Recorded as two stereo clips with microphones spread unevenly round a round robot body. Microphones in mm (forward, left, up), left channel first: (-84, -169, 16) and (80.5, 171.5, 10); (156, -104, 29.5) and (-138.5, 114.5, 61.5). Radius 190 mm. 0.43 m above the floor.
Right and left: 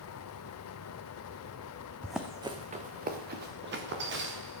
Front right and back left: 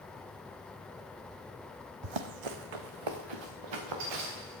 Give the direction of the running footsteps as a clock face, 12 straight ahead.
7 o'clock.